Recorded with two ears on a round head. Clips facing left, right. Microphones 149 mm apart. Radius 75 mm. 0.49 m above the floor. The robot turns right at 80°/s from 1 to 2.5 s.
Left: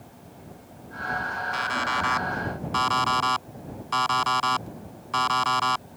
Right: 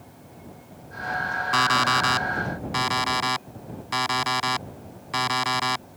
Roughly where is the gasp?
No gasp in this recording.